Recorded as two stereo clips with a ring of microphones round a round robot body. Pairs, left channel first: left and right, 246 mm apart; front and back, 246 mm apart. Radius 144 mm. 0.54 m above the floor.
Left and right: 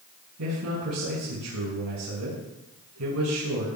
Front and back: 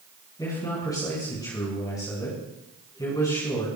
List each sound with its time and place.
0.4 s a man speaking: 75° right, 5.5 m